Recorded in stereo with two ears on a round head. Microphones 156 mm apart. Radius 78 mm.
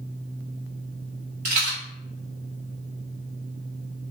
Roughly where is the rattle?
Right.